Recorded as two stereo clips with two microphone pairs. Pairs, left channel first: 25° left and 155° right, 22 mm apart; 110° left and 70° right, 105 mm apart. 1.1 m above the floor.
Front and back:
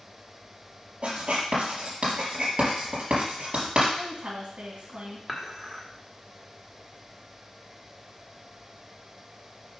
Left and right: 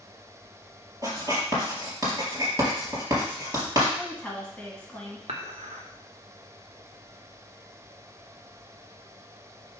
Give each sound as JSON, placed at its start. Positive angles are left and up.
{"t": 1.0, "sound": "writing", "azimuth_deg": -130, "distance_m": 3.5}
{"t": 4.0, "sound": "a woman speaking", "azimuth_deg": -170, "distance_m": 2.0}
{"t": 5.3, "sound": "dishes clattering", "azimuth_deg": -65, "distance_m": 1.4}